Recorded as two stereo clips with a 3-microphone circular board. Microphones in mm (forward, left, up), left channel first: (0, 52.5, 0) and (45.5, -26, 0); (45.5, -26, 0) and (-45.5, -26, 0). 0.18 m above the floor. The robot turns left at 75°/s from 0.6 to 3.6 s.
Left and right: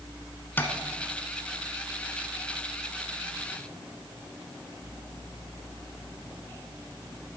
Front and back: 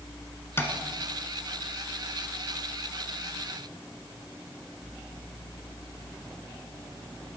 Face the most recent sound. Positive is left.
turn(degrees=-170)